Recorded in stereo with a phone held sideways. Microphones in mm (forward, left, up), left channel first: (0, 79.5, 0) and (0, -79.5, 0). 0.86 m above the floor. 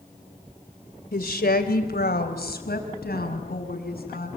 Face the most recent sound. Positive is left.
turn(degrees=75)  # may be behind; listen again after turning